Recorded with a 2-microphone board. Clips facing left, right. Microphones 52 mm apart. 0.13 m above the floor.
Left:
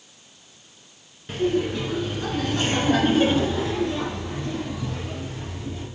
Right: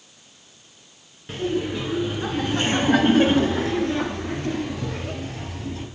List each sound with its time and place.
1.3 s laughter: 5° right (ahead or behind), 1.5 m; by 5.8 s 60° right (ahead or behind), 2.5 m